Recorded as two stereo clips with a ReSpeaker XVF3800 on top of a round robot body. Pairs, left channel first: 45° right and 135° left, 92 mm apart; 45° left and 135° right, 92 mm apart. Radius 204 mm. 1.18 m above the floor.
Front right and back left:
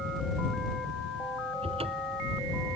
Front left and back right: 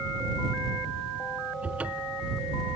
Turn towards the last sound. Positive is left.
turn(degrees=150)